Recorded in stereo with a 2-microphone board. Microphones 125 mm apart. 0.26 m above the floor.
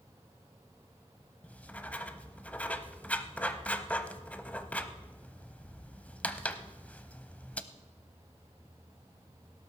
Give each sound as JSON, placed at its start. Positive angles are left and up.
{"t": 1.4, "sound": "writing", "side_deg": 10, "distance_m": 0.7}